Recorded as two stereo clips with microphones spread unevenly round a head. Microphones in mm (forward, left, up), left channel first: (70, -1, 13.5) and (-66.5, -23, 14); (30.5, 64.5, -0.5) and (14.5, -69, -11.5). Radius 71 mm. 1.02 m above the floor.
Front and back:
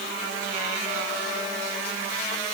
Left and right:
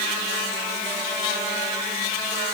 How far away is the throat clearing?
I don't hear throat clearing.